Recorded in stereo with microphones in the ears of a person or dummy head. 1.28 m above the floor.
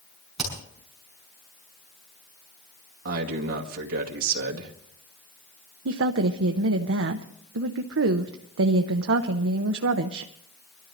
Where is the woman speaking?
70° right (ahead or behind), 0.8 m.